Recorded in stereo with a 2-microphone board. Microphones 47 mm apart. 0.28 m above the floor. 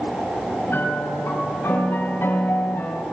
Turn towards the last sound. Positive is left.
turn(degrees=55)  # may be behind; listen again after turning